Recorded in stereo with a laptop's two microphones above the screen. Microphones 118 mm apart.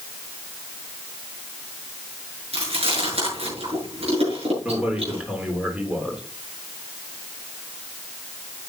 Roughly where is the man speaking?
Centre.